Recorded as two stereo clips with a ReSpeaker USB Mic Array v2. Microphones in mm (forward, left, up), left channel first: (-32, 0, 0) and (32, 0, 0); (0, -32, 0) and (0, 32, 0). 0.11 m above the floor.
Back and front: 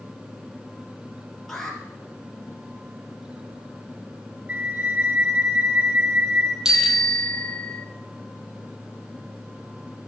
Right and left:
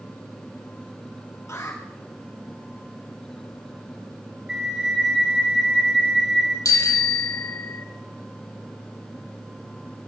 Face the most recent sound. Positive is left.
turn(degrees=-80)